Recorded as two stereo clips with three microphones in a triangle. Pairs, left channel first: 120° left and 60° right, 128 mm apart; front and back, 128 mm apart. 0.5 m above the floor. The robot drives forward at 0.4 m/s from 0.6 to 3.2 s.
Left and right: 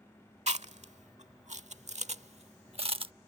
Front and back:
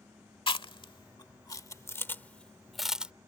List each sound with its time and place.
0.5 s chewing: 40° right; by 3.1 s 100° right